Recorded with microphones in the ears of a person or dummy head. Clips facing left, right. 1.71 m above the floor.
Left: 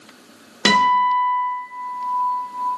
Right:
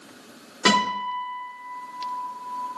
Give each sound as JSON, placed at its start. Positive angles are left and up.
{"t": 0.7, "sound": "a guitar", "side_deg": 40, "distance_m": 1.1}